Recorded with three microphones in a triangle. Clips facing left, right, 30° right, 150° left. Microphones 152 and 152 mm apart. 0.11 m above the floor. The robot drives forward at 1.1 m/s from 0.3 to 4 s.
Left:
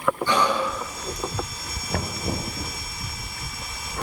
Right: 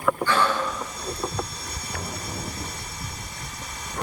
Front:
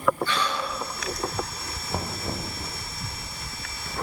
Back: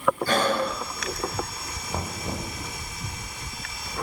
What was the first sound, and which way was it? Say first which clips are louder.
Breathing: left 1 dB, back 5 dB; 155° left.